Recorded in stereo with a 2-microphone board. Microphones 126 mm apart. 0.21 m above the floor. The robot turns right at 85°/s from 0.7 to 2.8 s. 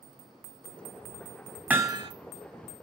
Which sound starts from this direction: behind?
Hammering, at 1.7 s.